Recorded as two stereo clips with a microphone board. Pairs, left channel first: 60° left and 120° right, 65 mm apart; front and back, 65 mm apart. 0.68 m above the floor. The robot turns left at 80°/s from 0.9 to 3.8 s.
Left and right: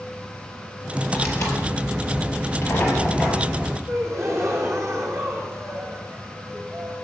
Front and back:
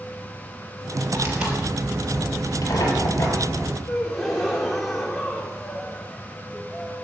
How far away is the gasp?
About 2.5 m.